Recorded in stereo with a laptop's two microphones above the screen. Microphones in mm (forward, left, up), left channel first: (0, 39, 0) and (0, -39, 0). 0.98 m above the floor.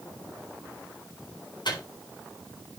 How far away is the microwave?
About 3.5 m.